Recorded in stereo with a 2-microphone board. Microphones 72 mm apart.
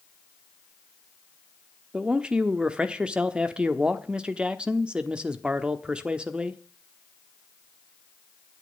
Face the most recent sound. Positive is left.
turn(degrees=-15)  # may be behind; listen again after turning